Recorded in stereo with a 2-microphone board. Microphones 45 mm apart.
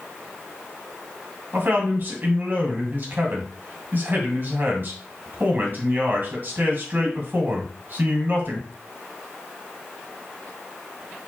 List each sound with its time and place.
1.5 s a man speaking: 50° right (ahead or behind), 1.5 m